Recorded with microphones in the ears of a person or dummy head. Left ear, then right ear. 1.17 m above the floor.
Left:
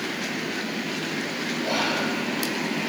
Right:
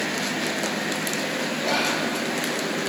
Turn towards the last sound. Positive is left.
turn(degrees=-50)  # may be behind; listen again after turning